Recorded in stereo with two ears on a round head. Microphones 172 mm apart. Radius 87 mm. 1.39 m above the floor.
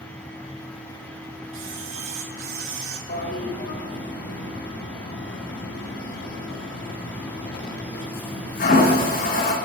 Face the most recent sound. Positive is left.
turn(degrees=50)  # may be behind; listen again after turning